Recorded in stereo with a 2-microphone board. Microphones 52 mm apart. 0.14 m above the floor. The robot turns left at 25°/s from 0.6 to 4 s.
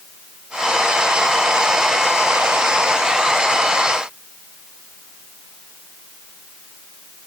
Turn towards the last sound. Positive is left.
No sound to turn to.